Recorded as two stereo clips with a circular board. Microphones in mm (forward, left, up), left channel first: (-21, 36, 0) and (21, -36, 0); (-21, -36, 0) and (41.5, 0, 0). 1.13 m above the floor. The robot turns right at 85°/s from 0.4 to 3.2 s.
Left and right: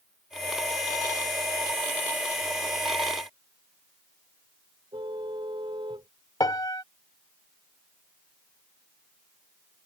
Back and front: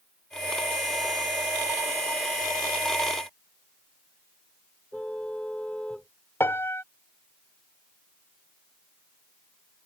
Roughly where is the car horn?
Right.